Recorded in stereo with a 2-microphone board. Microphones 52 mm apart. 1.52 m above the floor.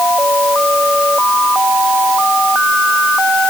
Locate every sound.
Only background noise.